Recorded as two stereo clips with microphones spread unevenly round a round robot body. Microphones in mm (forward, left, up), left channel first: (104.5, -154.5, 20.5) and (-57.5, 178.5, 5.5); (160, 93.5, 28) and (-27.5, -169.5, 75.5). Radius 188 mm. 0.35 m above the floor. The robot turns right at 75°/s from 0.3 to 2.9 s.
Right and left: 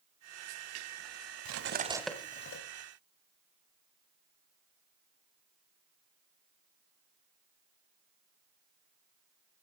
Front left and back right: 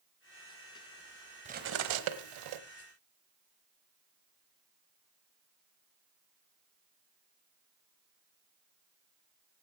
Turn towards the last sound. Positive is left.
turn(degrees=-90)